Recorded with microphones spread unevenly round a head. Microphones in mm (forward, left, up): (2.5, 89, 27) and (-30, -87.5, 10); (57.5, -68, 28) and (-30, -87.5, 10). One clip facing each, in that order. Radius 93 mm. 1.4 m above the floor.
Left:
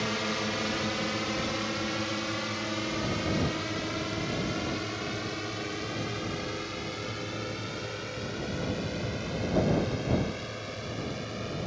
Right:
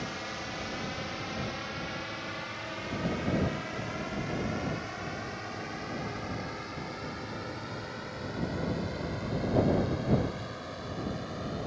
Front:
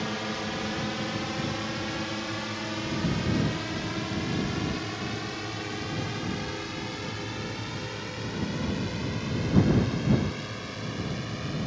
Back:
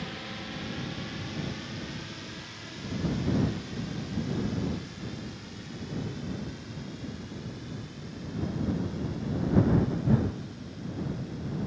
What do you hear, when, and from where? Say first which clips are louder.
0.0 s a drone: left 7 dB, front 7 dB; 60° left; by 11.7 s 20° left